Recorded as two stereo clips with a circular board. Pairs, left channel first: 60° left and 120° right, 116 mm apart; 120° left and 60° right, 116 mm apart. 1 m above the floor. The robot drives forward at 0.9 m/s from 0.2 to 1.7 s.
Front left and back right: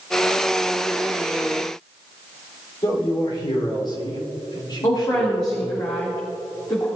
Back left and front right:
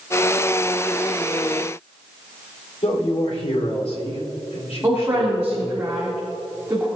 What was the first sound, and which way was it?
A man speaking, 105° left.